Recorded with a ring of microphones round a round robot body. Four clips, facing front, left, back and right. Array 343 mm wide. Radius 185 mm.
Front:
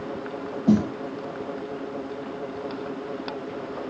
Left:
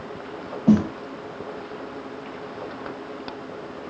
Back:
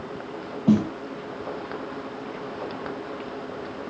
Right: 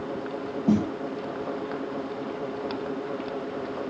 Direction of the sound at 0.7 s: 105° left.